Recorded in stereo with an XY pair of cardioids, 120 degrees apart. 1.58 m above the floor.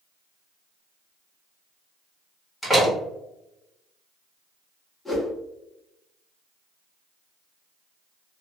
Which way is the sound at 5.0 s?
10° left.